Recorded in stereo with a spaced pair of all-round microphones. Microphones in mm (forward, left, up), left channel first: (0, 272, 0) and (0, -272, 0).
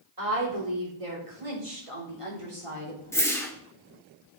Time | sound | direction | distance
0.2 | a woman speaking | 85° right | 4 m
3.1 | a whoosh | 5° left (ahead or behind) | 1.7 m